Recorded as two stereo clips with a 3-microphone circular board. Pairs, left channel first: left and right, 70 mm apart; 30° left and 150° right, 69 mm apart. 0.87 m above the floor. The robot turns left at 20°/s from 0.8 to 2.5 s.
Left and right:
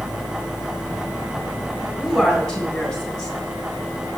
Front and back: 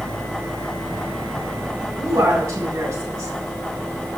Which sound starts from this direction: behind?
A woman speaking, at 2.0 s.